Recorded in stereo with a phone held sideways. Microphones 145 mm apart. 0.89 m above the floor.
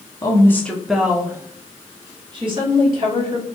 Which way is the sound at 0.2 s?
25° left (ahead or behind).